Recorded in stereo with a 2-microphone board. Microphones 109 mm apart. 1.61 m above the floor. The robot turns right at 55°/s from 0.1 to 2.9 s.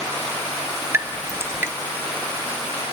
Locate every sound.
0.9 s dripping: 25° right (ahead or behind), 0.7 m; by 1.7 s 20° right (ahead or behind), 0.7 m